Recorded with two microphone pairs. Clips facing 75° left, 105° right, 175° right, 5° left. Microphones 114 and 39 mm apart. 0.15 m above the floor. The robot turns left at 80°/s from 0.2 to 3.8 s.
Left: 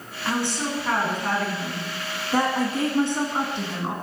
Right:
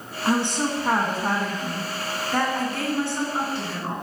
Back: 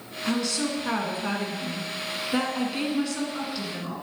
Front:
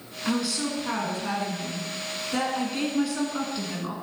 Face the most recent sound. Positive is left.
turn(degrees=25)